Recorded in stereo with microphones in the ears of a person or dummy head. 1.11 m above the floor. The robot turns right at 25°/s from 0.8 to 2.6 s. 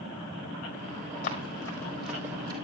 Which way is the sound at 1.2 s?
40° left (ahead or behind).